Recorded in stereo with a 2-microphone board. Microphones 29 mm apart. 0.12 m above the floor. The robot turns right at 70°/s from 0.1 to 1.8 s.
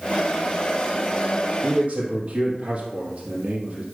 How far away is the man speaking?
About 2.5 m.